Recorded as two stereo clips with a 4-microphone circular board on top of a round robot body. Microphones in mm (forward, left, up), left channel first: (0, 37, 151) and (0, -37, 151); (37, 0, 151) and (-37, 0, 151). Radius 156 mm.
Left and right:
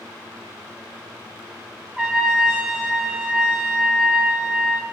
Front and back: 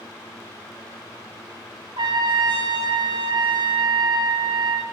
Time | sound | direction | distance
2.0 | a trumpet | 170° right | 1.2 m